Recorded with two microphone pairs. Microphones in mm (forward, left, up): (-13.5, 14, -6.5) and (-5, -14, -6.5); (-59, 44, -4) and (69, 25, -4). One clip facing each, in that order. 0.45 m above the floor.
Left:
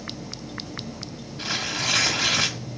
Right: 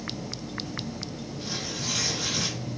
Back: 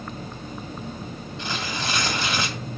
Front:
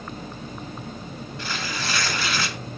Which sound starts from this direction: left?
Tearing paper, at 1.4 s.